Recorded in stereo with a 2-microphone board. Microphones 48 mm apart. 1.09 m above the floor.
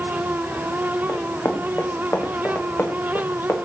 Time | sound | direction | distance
1.1 | running footsteps | 55° left (ahead or behind) | 2.5 m